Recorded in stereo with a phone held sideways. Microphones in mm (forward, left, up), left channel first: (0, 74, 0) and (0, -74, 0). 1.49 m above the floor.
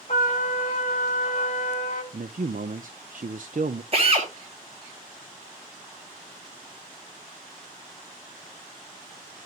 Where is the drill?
40° right (ahead or behind), 5 m.